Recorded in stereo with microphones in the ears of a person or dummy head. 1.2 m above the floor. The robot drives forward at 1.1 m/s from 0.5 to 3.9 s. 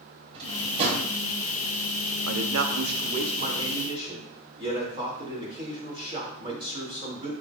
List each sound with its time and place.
0.3 s a drawer: 35° right (ahead or behind), 3 m; by 1.1 s 45° right (ahead or behind), 2.5 m
2.3 s a man speaking: 85° right, 0.9 m; by 7.3 s 25° right (ahead or behind), 2 m